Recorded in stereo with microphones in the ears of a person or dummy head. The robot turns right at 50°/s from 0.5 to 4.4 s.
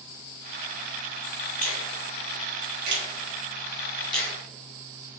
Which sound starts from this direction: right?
A finger snap, at 1.6 s.